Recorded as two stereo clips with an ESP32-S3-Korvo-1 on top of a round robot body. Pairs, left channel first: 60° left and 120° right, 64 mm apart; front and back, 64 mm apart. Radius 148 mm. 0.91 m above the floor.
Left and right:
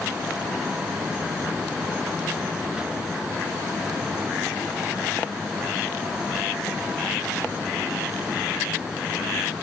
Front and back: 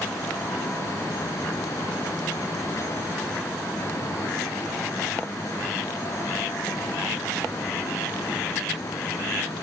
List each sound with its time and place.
Only background noise.